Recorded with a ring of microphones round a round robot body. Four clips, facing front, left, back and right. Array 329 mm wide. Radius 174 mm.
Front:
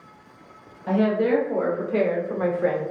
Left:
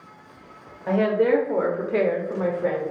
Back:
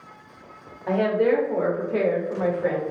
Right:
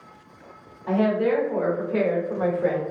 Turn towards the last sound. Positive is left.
turn(degrees=-25)